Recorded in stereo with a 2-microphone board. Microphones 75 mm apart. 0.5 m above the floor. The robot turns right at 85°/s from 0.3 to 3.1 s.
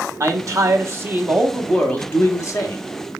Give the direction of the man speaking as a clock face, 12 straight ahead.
4 o'clock.